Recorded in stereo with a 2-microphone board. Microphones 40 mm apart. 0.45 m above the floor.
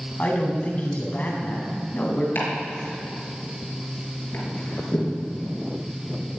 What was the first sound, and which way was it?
A man speaking, 40° left (ahead or behind).